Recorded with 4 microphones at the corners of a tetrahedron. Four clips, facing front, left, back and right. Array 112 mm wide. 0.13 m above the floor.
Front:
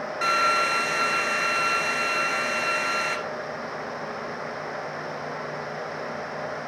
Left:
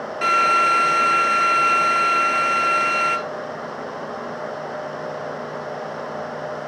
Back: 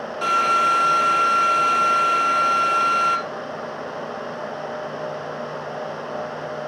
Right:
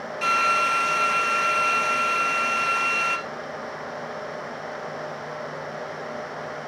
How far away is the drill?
About 2 m.